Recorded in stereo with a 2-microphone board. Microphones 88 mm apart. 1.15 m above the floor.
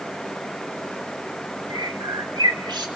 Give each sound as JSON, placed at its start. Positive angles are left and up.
{"t": 1.7, "sound": "a bird", "side_deg": -55, "distance_m": 2.5}